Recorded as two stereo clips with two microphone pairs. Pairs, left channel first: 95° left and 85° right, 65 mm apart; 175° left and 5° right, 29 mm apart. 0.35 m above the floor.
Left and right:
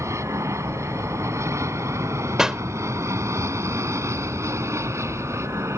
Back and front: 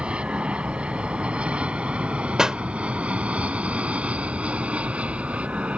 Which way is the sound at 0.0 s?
55° right.